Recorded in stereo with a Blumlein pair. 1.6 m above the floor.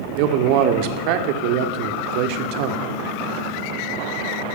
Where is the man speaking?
45° right, 1.1 m.